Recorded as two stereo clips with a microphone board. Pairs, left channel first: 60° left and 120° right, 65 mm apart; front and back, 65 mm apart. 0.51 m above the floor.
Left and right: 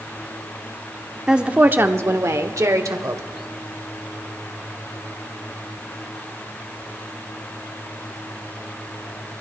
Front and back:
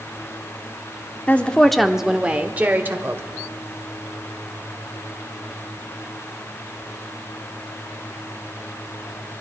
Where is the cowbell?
I don't hear a cowbell.